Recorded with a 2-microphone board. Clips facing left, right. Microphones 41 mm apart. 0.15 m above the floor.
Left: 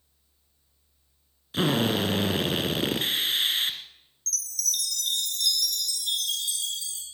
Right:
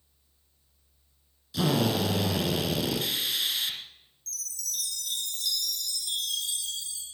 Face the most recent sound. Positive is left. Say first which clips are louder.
# left 7 dB
turn(degrees=65)  # may be behind; listen again after turning